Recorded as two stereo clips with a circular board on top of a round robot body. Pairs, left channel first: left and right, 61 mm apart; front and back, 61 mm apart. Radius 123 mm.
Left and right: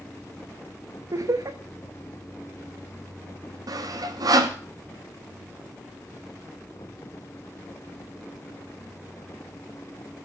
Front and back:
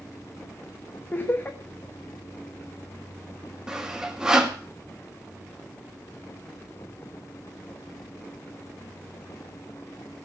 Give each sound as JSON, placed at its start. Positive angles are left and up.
{"t": 1.1, "sound": "laughter", "azimuth_deg": -60, "distance_m": 1.4}
{"t": 3.7, "sound": "sawing", "azimuth_deg": -100, "distance_m": 2.5}